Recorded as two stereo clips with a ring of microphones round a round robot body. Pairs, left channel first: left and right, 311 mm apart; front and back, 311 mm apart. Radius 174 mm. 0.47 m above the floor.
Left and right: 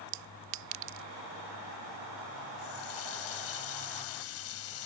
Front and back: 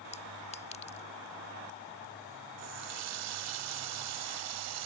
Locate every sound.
0.1 s a clink: 70° right
2.6 s a running tap: 140° left